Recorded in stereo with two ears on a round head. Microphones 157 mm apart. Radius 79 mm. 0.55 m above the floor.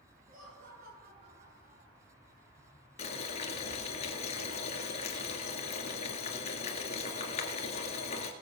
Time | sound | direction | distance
0.3 | laughter | 55° right (ahead or behind) | 9 m
3.0 | boiling | 35° left (ahead or behind) | 1.9 m